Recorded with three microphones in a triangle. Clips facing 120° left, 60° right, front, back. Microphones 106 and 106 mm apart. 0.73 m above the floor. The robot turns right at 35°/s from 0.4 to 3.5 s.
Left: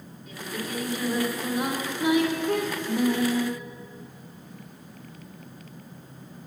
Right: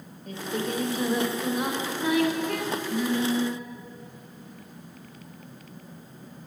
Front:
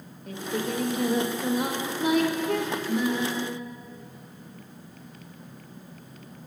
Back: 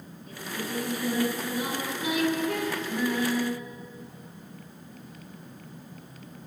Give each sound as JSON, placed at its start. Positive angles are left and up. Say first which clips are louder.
{"t": 0.3, "sound": "singing", "louder": "right 4 dB, front 6 dB", "azimuth_deg": -15, "distance_m": 0.8}